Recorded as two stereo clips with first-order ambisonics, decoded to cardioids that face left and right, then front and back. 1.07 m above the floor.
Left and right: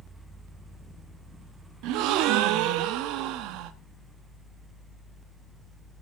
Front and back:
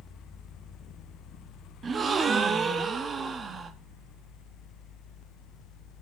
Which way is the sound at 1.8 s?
115° right.